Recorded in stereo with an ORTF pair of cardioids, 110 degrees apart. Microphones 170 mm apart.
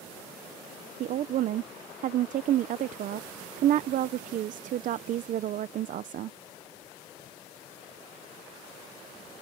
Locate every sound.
1.0 s a woman speaking: 55° right